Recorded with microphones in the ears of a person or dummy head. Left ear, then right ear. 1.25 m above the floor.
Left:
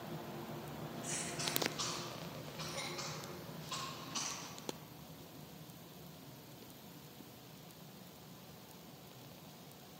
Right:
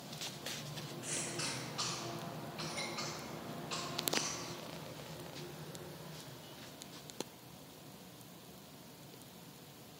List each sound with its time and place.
1.0 s a cough: 25° right (ahead or behind), 2.5 m